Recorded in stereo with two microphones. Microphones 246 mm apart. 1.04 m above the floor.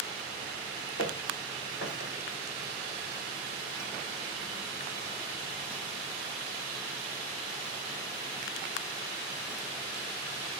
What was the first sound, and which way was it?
Footsteps, 55° left (ahead or behind).